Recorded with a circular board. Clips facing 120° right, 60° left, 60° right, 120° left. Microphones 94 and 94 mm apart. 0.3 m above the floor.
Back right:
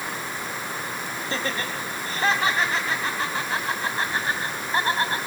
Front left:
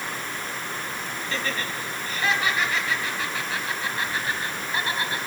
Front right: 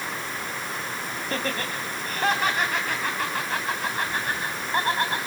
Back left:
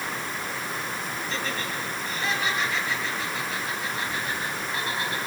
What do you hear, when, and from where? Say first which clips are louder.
1.3 s laughter: back right 1 dB, front right 4 dB; 75° right, 2.5 m